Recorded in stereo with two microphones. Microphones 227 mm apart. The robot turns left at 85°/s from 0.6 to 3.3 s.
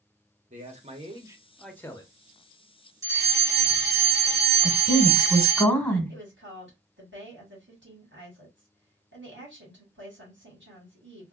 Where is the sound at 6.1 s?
60° right (ahead or behind), 2.0 m.